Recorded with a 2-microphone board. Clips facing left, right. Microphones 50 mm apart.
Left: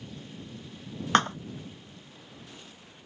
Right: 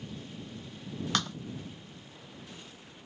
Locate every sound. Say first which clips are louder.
1.1 s a thud: left 10 dB; 40° left (ahead or behind)